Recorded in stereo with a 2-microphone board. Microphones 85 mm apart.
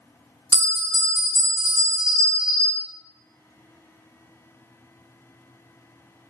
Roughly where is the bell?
Left.